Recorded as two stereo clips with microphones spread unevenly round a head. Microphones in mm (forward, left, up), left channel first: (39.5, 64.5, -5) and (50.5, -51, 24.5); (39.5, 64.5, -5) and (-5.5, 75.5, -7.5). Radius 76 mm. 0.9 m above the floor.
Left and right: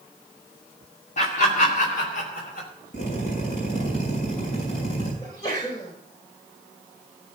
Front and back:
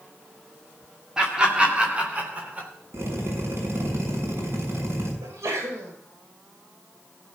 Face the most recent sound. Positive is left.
turn(degrees=165)